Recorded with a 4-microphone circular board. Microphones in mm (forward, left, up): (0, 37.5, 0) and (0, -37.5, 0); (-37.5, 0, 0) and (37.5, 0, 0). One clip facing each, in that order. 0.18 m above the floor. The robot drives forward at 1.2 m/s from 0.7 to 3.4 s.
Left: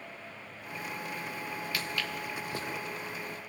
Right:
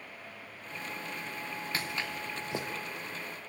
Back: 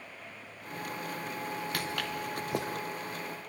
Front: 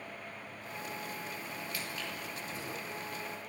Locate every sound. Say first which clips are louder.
1.7 s footsteps: right 1 dB, back 6 dB; 150° right, 1.8 m; by 2.7 s 160° right, 3 m